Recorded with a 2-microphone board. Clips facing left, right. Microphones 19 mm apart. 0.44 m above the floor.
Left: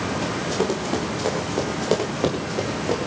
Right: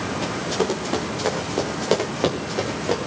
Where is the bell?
No bell in this recording.